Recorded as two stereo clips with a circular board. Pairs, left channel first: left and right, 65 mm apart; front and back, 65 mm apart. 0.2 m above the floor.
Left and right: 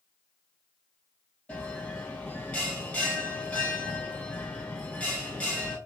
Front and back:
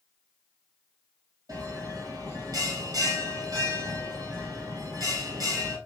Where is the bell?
160° left, 1.6 m.